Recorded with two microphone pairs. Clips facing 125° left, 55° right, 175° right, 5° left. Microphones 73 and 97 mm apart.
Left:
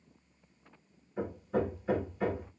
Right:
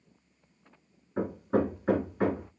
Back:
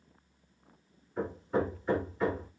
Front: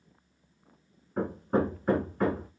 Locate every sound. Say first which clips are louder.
1.2 s hammering: right 5 dB, front 3 dB; 30° right, 1.1 m